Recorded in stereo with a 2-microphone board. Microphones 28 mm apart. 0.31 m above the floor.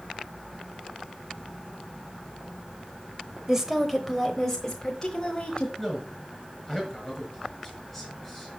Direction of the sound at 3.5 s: 20° right (ahead or behind).